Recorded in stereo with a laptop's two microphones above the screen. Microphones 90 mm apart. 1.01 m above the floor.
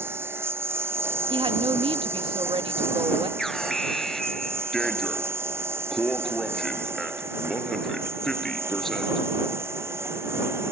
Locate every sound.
0.0 s a lawn mower: 25° right (ahead or behind); by 10.7 s 30° right (ahead or behind)
1.3 s a woman speaking: 80° right
3.4 s an alarm: 5° left (ahead or behind)